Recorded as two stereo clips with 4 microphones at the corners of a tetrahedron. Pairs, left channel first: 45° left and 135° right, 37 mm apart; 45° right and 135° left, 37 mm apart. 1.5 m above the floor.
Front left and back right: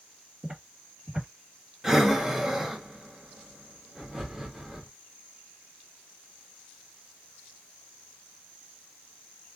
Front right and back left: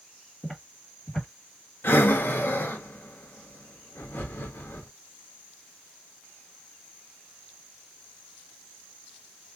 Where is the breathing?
55° right, 0.6 m.